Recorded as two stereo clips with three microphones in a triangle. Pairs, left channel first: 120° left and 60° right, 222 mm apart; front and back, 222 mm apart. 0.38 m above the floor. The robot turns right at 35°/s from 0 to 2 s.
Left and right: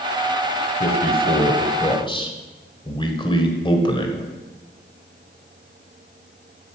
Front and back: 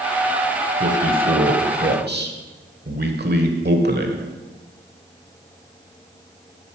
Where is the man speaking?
135° left, 1.2 m; by 4.3 s straight behind, 1.2 m.